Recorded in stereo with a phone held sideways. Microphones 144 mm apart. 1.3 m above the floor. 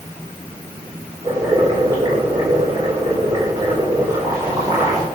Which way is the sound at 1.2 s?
25° right (ahead or behind).